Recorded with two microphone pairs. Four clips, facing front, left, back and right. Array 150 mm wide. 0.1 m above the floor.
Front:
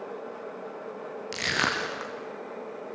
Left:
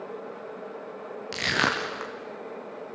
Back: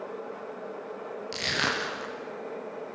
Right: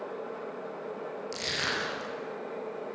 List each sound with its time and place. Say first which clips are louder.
1.3 s crushing: left 10 dB, front 2 dB; 65° left, 4.5 m